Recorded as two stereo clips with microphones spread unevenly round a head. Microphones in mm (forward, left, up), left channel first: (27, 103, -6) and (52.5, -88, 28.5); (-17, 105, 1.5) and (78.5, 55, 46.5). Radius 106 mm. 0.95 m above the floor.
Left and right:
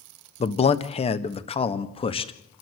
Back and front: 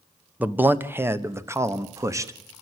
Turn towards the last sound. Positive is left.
turn(degrees=45)